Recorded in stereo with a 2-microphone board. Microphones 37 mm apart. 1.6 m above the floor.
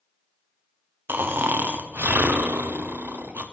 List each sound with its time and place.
1.1 s snoring: 65° right (ahead or behind), 0.9 m